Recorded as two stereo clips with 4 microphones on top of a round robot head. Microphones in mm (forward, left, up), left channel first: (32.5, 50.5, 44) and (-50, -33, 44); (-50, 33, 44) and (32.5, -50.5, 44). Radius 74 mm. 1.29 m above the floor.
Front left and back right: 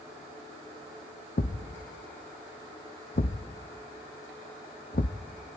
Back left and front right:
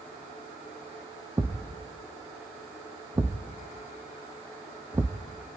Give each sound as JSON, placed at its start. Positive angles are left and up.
{"t": 1.4, "sound": "a thud", "azimuth_deg": 25, "distance_m": 1.0}